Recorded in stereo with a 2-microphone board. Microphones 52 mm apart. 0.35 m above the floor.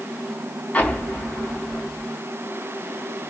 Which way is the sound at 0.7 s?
30° left (ahead or behind).